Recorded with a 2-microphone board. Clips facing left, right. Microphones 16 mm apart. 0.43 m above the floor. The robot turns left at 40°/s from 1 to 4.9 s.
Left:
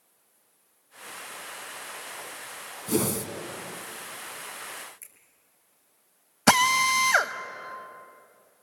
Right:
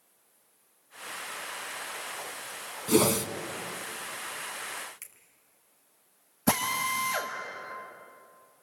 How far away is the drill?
About 1.2 m.